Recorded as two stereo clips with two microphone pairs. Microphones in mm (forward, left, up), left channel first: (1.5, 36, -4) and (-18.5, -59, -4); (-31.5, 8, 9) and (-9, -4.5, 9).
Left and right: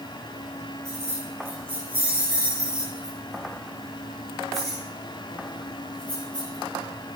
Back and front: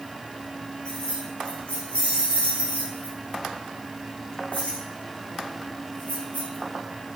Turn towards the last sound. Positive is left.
turn(degrees=150)